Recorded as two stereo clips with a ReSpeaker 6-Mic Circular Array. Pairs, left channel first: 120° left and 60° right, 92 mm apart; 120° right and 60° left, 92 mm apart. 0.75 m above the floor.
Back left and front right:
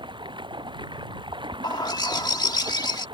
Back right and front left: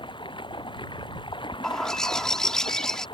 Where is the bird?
155° left.